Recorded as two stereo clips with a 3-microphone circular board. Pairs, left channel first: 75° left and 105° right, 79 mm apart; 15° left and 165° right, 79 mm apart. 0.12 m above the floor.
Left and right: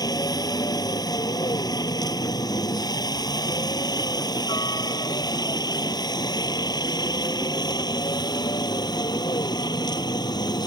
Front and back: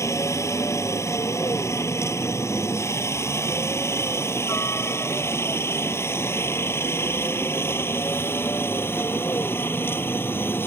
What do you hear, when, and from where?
0.0 s a helicopter: 60° left; by 10.7 s 70° left